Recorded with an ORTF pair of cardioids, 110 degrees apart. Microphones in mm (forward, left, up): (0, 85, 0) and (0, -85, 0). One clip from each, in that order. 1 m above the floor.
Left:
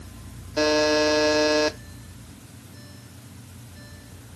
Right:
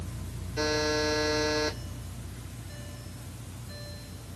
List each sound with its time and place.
0.6 s a buzzer: 55° left, 0.8 m